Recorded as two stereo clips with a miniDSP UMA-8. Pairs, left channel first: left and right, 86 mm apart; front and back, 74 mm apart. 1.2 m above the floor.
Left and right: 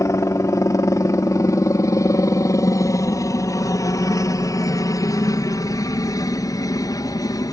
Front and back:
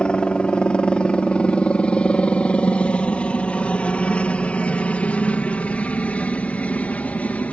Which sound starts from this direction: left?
A helicopter, at 0.0 s.